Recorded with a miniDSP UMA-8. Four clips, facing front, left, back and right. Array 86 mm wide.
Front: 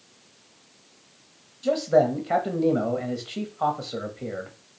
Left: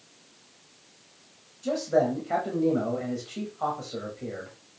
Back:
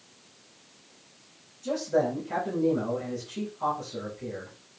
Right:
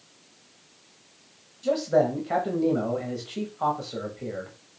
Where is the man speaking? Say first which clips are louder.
Right 2 dB, front 6 dB; 20° right, 0.9 m.